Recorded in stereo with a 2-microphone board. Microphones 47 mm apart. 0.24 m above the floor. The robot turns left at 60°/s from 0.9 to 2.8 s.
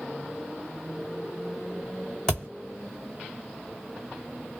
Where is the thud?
15° left (ahead or behind), 1.0 m; by 2.5 s 25° left (ahead or behind), 1.0 m.